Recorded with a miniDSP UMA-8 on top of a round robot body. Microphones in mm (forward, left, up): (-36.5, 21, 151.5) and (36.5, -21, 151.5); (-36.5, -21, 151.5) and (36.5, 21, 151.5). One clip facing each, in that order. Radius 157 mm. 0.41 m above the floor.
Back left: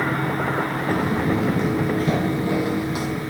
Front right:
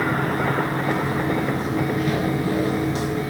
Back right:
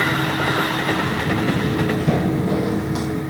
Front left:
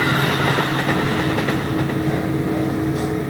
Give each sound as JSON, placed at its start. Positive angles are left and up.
{"t": 0.9, "sound": "footsteps", "azimuth_deg": 100, "distance_m": 0.8}